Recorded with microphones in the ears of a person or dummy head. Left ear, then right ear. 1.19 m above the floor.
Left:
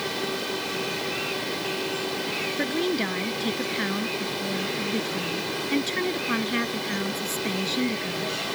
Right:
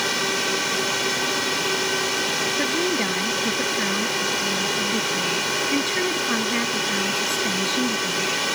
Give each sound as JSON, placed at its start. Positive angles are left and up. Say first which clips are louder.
{"t": 0.0, "sound": "a drone", "louder": "right 6 dB", "side_deg": -50}
{"t": 2.6, "sound": "a woman speaking", "louder": "right 4 dB", "side_deg": 0}